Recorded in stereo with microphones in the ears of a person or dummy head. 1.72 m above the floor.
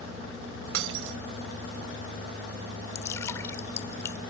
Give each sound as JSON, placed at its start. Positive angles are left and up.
{"t": 0.7, "sound": "breaking glass", "side_deg": -80}
{"t": 3.0, "sound": "dripping", "side_deg": 15}